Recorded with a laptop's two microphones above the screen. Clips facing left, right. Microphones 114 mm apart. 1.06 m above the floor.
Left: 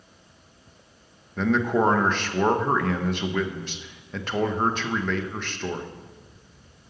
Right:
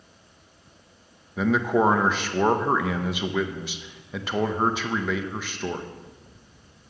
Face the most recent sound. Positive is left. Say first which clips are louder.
# right 1 dB
turn(degrees=-5)  # may be behind; listen again after turning